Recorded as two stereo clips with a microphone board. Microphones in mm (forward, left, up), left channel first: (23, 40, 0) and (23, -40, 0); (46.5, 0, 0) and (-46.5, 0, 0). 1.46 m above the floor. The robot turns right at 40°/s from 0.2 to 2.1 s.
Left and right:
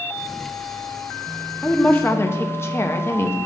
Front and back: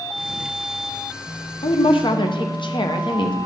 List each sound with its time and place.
1.6 s a woman speaking: 10° left, 0.7 m; by 3.4 s 30° left, 0.7 m